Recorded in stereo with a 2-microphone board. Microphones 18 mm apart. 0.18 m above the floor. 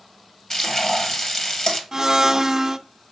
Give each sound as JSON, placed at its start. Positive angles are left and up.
{"t": 0.5, "sound": "frying", "side_deg": 40, "distance_m": 1.4}
{"t": 1.9, "sound": "a blender", "side_deg": -25, "distance_m": 0.5}